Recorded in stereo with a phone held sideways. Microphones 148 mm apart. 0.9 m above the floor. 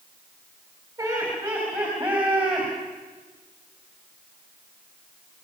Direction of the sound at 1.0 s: 20° right (ahead or behind).